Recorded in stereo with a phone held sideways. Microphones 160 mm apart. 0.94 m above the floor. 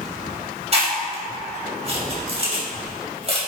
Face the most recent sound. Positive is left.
turn(degrees=-40)  # may be behind; listen again after turning